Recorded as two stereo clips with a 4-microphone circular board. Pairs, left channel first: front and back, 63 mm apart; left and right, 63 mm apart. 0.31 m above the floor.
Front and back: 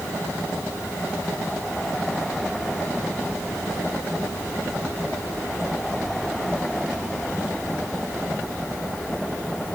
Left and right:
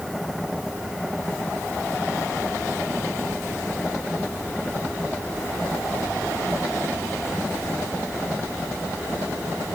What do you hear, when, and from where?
Only background noise.